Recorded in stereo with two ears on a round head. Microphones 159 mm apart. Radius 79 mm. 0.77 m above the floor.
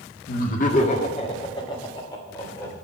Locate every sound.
0.3 s laughter: 55° left (ahead or behind), 1.7 m; by 2.8 s 15° left (ahead or behind), 3.5 m